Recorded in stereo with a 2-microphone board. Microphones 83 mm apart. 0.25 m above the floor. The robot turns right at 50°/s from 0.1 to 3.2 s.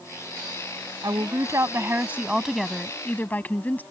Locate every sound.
1.0 s a woman speaking: 80° right; by 3.8 s 30° left